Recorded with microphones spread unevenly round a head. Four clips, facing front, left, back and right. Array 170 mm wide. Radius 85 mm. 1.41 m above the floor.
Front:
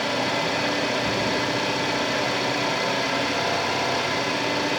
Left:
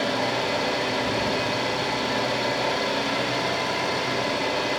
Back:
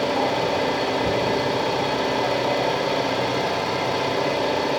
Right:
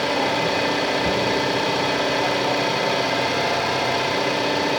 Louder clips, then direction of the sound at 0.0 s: Right 4 dB, back 3 dB; 135° right.